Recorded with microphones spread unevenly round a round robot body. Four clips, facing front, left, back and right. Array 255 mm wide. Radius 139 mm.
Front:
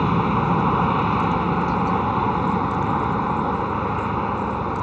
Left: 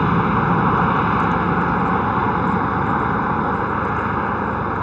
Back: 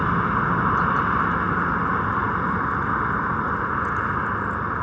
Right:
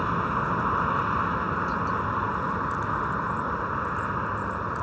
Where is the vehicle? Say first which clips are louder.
Left 9 dB, front 2 dB; 70° left.